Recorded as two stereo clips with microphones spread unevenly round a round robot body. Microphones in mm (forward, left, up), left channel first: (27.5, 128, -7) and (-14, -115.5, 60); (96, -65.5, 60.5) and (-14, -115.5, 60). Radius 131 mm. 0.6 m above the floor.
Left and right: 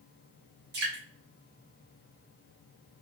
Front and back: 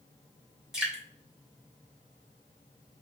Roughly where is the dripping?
Right.